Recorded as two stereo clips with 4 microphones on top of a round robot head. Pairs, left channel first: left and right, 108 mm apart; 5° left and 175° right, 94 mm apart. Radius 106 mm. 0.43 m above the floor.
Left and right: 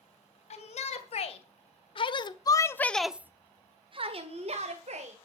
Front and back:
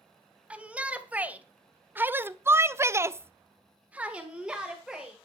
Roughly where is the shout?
Left.